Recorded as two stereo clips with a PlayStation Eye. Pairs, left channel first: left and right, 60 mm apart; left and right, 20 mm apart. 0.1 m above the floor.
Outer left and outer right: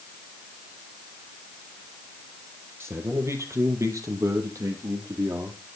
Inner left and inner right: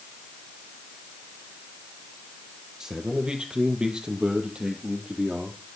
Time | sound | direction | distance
2.8 | a man speaking | 40° right (ahead or behind) | 2.5 m